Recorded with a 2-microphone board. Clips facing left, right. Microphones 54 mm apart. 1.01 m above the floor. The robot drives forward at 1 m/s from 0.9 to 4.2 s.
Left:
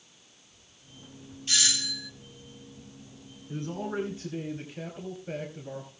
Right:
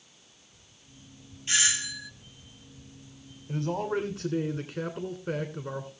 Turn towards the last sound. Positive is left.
turn(degrees=-65)  # may be behind; listen again after turning